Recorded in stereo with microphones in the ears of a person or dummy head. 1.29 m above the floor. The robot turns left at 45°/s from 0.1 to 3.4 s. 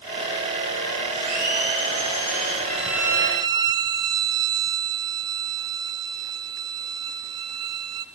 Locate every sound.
1.1 s a blender: 120° right, 5 m; by 2.6 s 175° left, 5 m
2.7 s a violin: 5° left, 0.6 m; by 8.1 s 30° right, 0.6 m